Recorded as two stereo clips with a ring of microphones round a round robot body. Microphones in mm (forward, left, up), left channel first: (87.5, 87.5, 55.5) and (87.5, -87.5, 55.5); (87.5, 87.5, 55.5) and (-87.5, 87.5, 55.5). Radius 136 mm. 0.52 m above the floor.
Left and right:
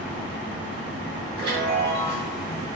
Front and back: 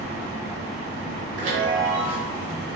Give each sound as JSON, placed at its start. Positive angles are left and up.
{"t": 1.4, "sound": "a chime", "azimuth_deg": -140, "distance_m": 3.5}